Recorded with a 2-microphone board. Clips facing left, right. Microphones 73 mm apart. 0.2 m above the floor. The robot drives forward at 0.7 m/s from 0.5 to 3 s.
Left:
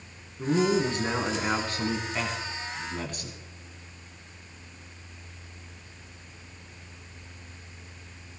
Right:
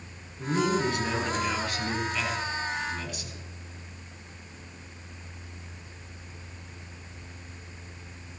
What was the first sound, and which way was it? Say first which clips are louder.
A man speaking: left 2 dB; 25° left (ahead or behind).